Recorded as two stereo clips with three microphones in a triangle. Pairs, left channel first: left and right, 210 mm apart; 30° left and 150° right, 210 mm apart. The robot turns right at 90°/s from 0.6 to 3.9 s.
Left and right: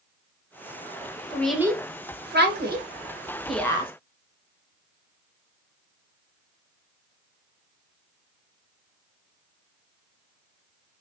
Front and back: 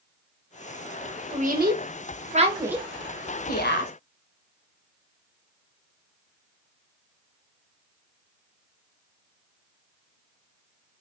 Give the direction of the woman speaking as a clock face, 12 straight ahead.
7 o'clock.